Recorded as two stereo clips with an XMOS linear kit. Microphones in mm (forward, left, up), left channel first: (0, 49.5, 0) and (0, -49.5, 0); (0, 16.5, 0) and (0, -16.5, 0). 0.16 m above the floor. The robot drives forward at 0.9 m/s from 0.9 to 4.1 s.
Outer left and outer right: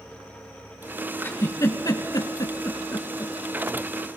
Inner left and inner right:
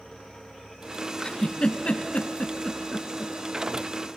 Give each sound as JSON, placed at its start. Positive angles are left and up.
{"t": 1.2, "sound": "a giggle", "side_deg": 25, "distance_m": 1.1}